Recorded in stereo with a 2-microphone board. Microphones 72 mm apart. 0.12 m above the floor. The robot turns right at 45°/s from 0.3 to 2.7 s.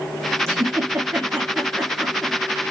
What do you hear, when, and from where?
0.5 s a giggle: 45° right (ahead or behind), 1.2 m; by 2.4 s centre (ahead or behind), 1.2 m